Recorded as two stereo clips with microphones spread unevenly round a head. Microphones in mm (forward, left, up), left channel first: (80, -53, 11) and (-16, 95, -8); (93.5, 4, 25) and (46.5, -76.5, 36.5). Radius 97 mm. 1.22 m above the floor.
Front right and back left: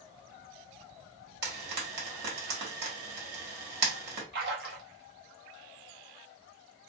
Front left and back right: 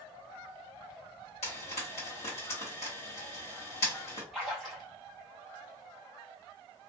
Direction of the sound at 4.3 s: 150° left.